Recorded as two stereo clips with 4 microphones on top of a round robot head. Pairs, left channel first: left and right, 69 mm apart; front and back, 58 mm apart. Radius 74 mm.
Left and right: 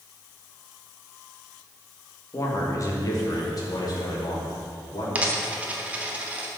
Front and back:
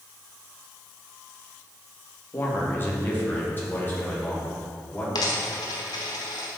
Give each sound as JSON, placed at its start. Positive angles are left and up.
{"t": 2.3, "sound": "a man speaking", "azimuth_deg": 50, "distance_m": 2.5}
{"t": 5.2, "sound": "a dropped coin", "azimuth_deg": -25, "distance_m": 1.0}